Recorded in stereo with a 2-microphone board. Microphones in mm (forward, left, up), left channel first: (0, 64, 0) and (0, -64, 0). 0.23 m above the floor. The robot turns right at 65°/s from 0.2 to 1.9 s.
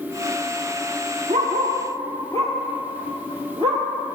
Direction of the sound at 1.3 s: 80° right.